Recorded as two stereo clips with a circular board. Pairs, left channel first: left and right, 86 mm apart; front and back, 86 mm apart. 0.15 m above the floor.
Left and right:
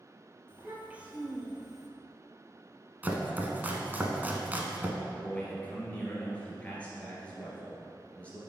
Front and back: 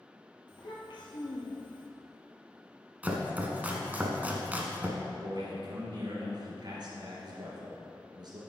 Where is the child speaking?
25° right, 2.0 m; by 1.9 s straight ahead, 1.9 m.